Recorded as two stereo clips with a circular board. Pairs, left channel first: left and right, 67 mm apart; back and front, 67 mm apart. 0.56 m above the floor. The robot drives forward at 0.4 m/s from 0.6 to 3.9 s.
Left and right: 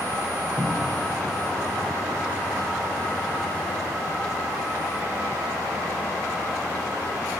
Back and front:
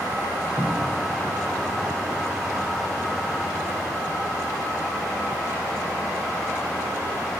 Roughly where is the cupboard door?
Right.